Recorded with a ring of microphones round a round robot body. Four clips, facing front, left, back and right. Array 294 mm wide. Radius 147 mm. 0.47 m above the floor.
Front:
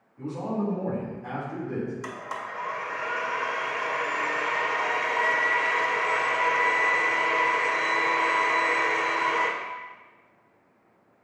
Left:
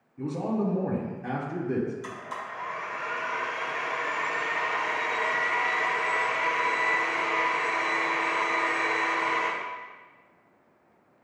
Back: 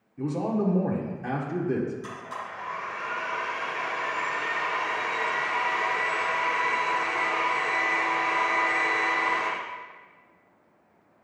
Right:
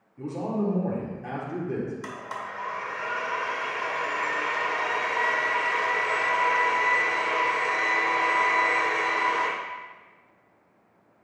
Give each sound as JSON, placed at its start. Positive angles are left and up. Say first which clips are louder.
{"t": 0.2, "sound": "a man speaking", "louder": "even, back 3 dB", "azimuth_deg": 180, "distance_m": 1.4}
{"t": 2.0, "sound": "a blender", "louder": "right 1 dB, front 2 dB", "azimuth_deg": -40, "distance_m": 1.9}